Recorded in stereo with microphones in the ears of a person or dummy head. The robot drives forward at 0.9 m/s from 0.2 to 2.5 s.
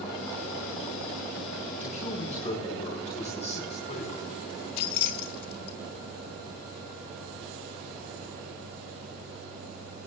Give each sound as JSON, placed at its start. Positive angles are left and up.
{"t": 1.8, "sound": "a man speaking", "side_deg": 50, "distance_m": 3.5}
{"t": 4.8, "sound": "keys jangling", "side_deg": 55, "distance_m": 0.8}